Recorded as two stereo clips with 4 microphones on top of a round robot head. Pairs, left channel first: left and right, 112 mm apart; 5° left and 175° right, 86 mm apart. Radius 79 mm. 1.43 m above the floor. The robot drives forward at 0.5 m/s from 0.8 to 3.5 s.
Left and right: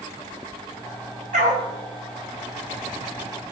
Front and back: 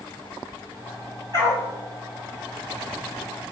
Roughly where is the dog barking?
Right.